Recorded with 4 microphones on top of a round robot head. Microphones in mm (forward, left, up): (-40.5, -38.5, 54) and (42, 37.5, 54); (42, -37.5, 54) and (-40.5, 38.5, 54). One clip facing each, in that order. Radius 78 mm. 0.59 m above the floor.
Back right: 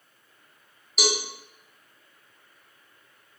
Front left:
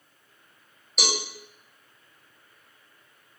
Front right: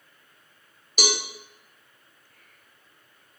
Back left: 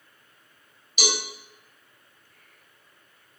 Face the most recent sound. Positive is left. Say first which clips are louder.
# back right 3 dB, front right 1 dB
turn(degrees=-50)